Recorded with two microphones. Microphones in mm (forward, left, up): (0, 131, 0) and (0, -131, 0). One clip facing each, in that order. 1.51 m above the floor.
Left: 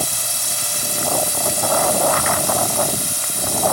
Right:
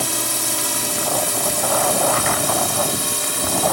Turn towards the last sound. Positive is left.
turn(degrees=-75)  # may be behind; listen again after turning